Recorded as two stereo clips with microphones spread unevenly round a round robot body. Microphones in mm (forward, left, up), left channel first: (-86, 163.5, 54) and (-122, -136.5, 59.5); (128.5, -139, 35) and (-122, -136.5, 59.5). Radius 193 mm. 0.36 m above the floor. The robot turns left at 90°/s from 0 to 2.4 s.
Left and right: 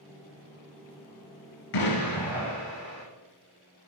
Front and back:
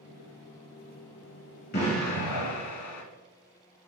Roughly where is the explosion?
Left.